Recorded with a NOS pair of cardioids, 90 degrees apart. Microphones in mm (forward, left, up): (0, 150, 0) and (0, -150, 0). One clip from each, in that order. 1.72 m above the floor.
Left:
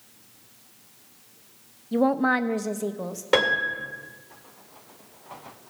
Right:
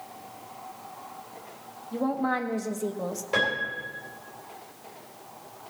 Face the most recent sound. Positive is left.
turn(degrees=70)